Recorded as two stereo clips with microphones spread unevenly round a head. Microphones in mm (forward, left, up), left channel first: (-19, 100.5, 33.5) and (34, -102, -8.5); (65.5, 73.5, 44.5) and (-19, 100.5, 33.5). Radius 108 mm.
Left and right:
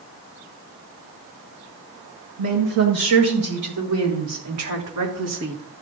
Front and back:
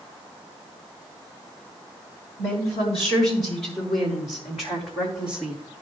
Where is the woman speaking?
60° right, 6 m; by 5.6 s 85° right, 1.8 m.